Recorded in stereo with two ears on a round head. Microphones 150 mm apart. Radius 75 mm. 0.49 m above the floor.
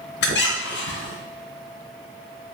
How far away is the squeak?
About 0.6 m.